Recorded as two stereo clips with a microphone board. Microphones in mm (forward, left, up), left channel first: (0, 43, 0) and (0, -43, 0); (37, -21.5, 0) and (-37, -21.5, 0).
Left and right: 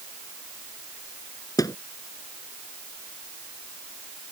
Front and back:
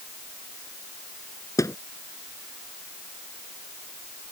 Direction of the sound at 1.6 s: 45° left.